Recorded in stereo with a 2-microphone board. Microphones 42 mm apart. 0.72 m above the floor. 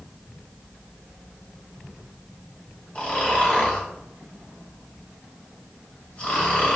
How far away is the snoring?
About 2 m.